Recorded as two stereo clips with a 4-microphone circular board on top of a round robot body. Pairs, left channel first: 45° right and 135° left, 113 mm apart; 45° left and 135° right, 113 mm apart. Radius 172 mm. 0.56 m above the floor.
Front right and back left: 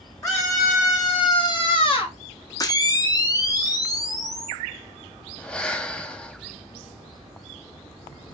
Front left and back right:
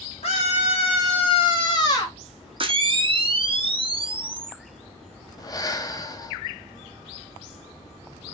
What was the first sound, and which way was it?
A scream, 15° left.